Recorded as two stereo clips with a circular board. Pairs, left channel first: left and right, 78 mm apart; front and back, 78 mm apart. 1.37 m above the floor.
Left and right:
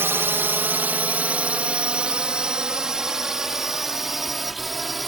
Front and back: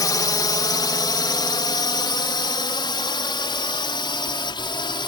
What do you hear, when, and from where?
0.0 s a drone: 30° right; by 5.1 s straight ahead